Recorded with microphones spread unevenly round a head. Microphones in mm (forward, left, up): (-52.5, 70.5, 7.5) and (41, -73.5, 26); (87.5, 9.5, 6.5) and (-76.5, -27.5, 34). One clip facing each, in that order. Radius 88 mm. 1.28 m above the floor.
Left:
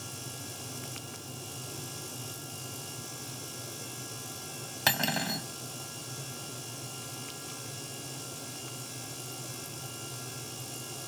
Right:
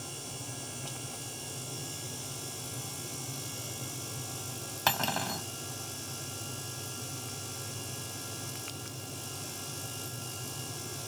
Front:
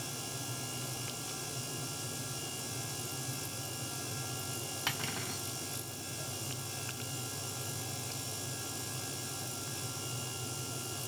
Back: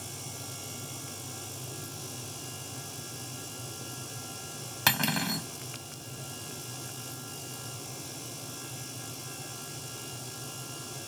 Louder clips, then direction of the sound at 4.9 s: Even, back 13 dB; 165° right.